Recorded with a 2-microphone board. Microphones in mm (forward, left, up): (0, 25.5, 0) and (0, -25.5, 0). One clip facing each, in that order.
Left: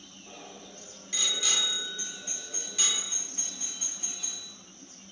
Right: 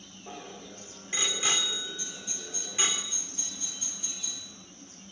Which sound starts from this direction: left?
A doorbell, at 2.0 s.